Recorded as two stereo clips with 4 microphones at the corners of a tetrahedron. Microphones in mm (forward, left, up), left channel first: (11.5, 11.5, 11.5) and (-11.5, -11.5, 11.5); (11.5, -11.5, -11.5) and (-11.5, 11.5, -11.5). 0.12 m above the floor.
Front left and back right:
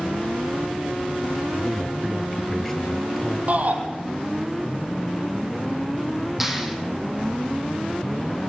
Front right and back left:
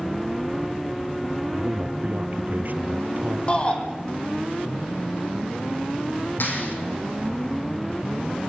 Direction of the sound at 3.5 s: 95° right.